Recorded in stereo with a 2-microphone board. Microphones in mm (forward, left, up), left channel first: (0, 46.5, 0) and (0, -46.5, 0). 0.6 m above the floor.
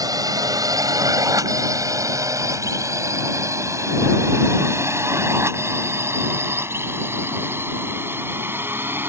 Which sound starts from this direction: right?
A drone, at 0.0 s.